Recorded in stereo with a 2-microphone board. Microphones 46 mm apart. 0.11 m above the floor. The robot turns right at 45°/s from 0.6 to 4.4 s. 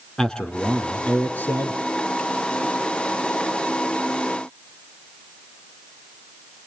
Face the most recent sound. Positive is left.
turn(degrees=-170)